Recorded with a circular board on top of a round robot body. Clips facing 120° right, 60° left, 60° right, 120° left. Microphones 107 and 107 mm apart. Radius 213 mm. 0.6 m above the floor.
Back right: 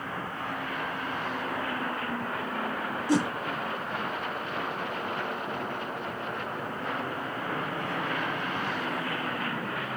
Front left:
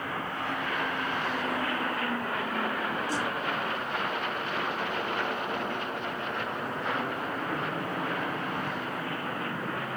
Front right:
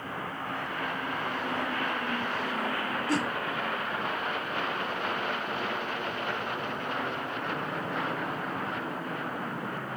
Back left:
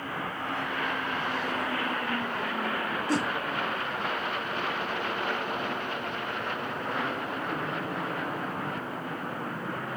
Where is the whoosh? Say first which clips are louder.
Back right 10 dB, back left 1 dB; 150° right.